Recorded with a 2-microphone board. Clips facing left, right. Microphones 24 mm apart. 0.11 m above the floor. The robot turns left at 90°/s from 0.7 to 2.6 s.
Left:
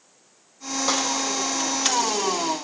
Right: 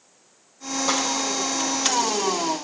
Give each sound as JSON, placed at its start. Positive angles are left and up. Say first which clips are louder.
{"t": 0.9, "sound": "a snare drum", "louder": "even", "side_deg": 15, "distance_m": 2.5}